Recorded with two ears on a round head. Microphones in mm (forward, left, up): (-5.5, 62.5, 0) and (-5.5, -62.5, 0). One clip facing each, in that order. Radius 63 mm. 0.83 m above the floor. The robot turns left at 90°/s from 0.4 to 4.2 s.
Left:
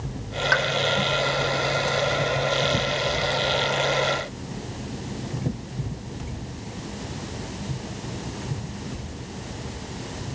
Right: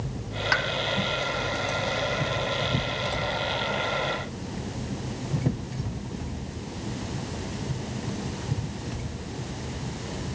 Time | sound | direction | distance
0.5 | a pop | 5° right (ahead or behind) | 0.5 m